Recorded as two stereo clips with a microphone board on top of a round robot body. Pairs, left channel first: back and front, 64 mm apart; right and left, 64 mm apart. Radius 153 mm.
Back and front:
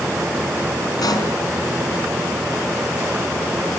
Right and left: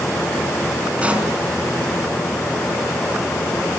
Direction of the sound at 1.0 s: 160° left.